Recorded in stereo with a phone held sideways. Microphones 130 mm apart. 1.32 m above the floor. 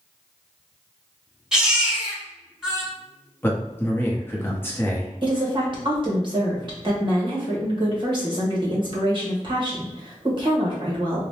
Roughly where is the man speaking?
Centre.